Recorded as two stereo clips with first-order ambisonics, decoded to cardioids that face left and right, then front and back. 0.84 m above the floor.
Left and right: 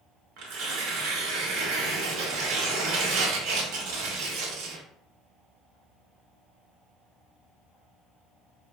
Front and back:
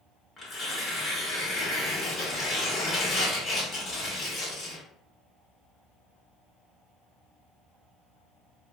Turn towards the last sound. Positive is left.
turn(degrees=-75)